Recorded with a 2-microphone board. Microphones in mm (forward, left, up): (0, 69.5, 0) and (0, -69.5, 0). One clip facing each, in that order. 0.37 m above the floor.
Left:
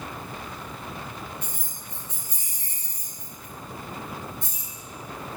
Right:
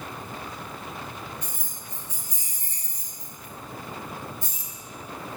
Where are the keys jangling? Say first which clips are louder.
Even; 55° left (ahead or behind), 1.3 m.